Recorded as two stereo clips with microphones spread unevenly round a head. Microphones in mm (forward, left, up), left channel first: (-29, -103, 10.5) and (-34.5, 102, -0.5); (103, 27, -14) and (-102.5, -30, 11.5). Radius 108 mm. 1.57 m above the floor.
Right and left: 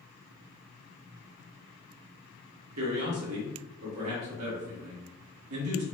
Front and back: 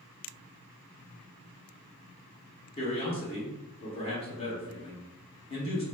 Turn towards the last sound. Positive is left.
turn(degrees=80)